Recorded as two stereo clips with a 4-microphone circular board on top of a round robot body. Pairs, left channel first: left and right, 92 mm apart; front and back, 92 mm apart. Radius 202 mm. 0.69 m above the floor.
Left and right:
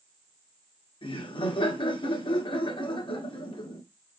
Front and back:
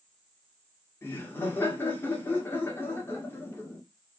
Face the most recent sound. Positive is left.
turn(degrees=65)